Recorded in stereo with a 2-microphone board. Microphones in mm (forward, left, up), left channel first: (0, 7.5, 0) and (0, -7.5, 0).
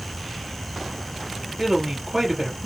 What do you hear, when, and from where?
1.6 s a woman speaking: 35° right (ahead or behind), 3 m